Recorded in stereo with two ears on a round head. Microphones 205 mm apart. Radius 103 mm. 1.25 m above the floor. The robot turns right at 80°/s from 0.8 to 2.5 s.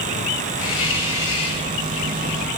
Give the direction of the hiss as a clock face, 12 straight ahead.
10 o'clock.